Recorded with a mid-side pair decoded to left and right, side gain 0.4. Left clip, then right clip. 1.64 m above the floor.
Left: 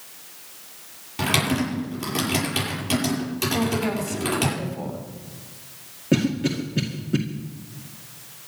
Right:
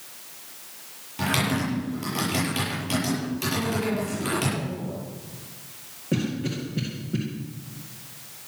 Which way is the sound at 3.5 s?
55° left.